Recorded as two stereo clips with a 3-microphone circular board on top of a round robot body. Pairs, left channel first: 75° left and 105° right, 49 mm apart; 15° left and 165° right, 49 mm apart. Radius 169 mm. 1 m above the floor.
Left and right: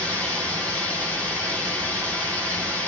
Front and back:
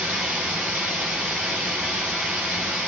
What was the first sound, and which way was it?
Running water, 110° left.